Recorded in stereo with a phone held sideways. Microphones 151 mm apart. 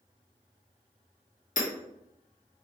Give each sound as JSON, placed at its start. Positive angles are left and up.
{"t": 1.6, "sound": "hammering", "side_deg": 55, "distance_m": 1.4}